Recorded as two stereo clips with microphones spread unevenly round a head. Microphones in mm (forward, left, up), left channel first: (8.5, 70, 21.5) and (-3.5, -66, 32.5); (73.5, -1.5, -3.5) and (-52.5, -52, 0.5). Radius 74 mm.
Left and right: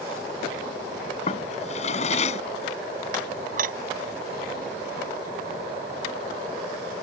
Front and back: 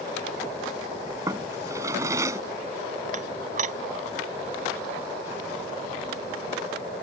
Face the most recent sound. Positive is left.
turn(degrees=-125)